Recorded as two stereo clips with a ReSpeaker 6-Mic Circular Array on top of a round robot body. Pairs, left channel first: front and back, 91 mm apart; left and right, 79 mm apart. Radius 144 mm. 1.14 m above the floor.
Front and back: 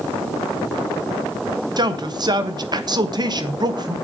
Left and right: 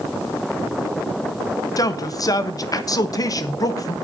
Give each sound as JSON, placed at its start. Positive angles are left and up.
{"t": 1.8, "sound": "a man speaking", "azimuth_deg": 135, "distance_m": 1.4}